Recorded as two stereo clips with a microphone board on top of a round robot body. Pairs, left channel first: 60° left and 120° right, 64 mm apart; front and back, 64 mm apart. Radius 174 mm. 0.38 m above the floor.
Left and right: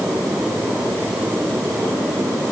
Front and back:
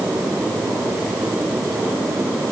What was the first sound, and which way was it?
Only background noise.